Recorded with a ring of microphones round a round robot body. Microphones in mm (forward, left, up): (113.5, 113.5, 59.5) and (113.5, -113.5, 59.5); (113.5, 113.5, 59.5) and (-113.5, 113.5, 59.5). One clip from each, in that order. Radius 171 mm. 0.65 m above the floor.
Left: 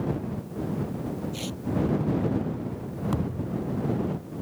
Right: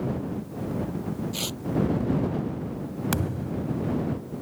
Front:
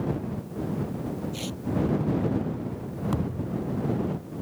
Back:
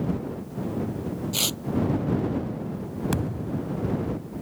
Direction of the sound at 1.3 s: 160° right.